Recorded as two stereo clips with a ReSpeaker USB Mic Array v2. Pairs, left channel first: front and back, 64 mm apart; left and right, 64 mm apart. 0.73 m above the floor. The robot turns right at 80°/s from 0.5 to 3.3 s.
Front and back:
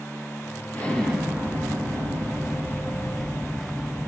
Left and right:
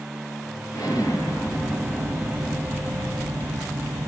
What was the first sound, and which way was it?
An explosion, 60° left.